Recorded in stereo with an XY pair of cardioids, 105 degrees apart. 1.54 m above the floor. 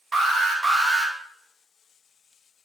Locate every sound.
0.1 s an alarm: 25° right, 0.8 m